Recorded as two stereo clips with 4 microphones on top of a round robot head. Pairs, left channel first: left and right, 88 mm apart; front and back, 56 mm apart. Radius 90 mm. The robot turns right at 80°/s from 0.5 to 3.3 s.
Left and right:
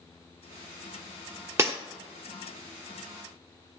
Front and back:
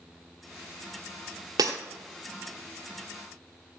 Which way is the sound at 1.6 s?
155° right.